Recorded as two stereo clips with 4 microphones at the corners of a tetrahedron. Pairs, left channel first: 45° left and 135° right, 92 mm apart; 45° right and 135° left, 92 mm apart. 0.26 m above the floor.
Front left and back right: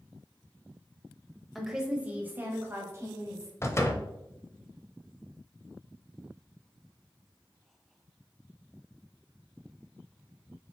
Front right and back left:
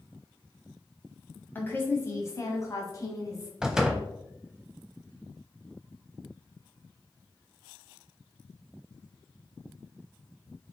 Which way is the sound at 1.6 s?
45° right.